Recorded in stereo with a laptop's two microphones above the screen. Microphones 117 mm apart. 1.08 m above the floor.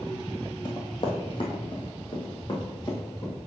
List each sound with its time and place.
0.7 s running footsteps: 40° left (ahead or behind), 1.4 m; by 3.3 s 35° left (ahead or behind), 3.5 m